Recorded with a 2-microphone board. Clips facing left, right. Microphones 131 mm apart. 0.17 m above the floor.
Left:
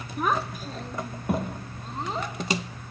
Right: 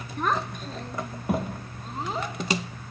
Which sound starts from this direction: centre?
A child speaking, at 0.2 s.